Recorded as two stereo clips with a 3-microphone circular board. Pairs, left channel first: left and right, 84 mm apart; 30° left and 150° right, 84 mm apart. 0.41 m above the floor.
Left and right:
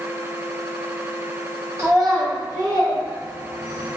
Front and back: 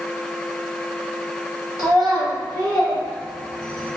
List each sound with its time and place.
1.8 s a child speaking: 140° right, 1.6 m; by 3.9 s 80° right, 1.5 m